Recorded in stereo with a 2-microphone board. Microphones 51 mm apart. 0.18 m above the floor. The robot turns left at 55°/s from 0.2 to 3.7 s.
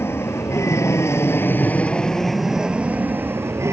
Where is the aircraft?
120° left; by 3.7 s 70° right.